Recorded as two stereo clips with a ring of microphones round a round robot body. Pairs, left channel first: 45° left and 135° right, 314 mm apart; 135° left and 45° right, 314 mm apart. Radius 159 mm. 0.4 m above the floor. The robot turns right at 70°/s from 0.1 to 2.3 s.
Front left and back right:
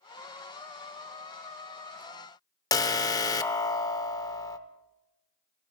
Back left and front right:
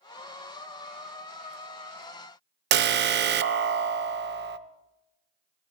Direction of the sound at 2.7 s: 25° right.